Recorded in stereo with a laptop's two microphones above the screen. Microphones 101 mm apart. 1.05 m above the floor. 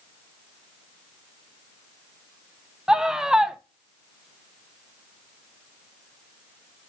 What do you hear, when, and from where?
2.9 s a scream: 5° right (ahead or behind), 0.5 m